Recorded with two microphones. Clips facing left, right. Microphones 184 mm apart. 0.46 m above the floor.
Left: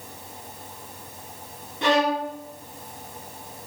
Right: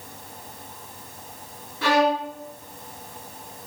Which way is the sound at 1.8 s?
20° left (ahead or behind).